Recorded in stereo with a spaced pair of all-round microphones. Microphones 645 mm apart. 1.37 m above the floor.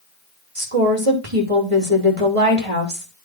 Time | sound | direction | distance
0.6 | a woman speaking | 55° right (ahead or behind) | 3 m